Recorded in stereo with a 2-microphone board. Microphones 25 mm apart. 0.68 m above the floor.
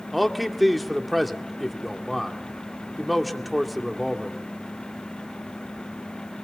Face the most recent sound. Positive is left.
turn(degrees=0)  # may be behind; listen again after turning